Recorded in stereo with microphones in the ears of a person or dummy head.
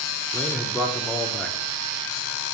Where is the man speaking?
5° left (ahead or behind), 0.6 m.